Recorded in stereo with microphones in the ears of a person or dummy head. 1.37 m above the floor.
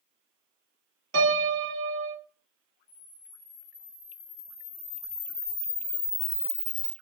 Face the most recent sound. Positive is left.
turn(degrees=70)  # may be behind; listen again after turning